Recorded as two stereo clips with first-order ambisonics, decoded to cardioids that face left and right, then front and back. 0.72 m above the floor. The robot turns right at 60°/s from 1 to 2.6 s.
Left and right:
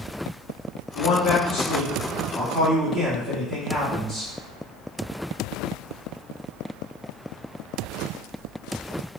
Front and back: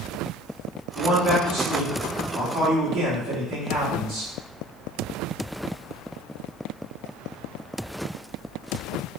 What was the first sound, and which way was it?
A man speaking, 100° left.